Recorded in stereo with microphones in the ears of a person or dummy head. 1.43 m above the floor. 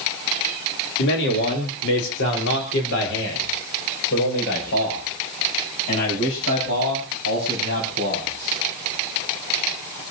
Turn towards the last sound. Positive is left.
turn(degrees=70)  # may be behind; listen again after turning